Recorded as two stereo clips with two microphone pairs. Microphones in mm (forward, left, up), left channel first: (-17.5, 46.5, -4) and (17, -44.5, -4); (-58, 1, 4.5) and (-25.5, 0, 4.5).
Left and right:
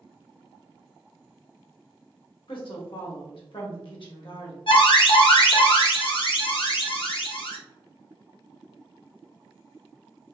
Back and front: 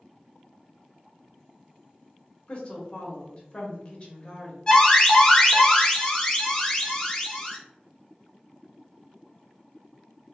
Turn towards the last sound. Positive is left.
turn(degrees=120)